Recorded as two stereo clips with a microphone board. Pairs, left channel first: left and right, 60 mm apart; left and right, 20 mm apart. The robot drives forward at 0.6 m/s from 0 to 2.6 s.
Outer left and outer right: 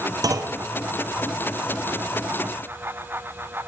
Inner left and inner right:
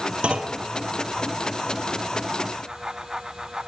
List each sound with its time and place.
0.2 s a clunk: 80° right, 0.5 m; by 0.6 s 60° right (ahead or behind), 0.6 m